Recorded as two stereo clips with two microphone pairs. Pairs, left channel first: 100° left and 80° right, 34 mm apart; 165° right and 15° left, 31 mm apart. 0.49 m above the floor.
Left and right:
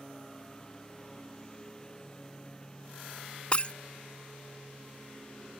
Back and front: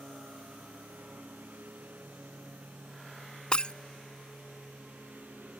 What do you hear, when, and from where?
0.0 s a lawn mower: 30° left
3.5 s breaking glass: 140° left